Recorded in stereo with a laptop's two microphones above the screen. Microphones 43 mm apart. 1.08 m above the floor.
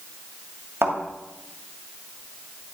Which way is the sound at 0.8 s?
75° right (ahead or behind).